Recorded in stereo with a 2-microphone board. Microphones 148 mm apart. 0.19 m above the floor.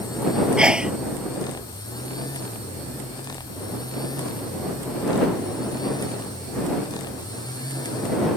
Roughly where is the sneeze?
Centre.